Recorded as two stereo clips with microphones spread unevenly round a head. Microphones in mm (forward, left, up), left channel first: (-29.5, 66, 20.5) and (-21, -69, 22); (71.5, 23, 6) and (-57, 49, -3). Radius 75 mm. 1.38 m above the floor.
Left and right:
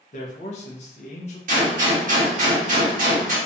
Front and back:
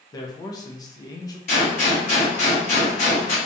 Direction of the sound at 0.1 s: 45° left.